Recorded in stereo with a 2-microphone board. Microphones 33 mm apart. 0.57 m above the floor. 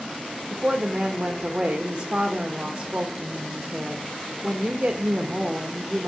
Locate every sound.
0.5 s a woman speaking: 30° right (ahead or behind), 1.5 m